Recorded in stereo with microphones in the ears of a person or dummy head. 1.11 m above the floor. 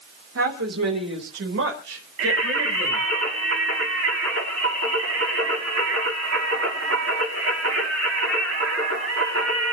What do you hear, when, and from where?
0.3 s a woman speaking: 85° right, 3 m; by 3.0 s 75° right (ahead or behind), 5.5 m
2.2 s singing: 75° right (ahead or behind), 7.5 m